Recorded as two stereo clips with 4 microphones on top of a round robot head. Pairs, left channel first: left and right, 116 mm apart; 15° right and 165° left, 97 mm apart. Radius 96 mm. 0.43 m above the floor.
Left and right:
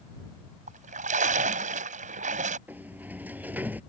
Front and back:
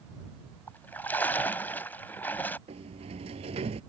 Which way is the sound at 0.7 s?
90° right.